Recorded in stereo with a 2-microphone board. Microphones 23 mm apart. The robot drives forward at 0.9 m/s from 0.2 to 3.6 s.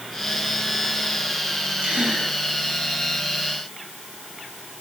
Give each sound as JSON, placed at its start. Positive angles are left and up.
{"t": 1.8, "sound": "a gasp", "side_deg": -80, "distance_m": 9.0}